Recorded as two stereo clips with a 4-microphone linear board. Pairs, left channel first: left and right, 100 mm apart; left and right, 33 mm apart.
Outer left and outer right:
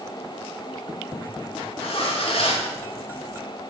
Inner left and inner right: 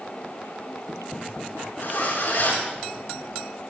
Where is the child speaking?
No child speaking in this recording.